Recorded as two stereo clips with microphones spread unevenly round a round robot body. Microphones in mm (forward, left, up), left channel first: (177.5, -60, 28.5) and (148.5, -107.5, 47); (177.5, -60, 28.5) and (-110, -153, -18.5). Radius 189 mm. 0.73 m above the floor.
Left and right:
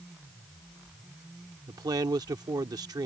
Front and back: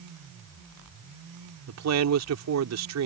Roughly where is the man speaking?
Behind right.